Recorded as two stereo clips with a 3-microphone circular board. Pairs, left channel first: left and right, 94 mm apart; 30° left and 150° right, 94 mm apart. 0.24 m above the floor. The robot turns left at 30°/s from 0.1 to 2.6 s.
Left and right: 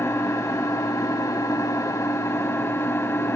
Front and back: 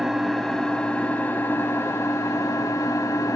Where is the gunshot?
No gunshot in this recording.